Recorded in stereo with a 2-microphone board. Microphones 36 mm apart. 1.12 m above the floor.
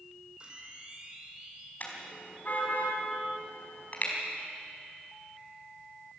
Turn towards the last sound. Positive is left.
turn(degrees=50)  # may be behind; listen again after turning